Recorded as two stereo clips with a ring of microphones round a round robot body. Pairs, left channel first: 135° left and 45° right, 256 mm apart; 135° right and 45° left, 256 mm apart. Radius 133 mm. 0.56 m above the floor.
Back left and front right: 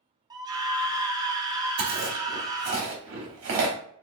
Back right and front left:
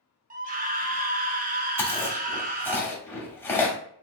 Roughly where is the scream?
Ahead.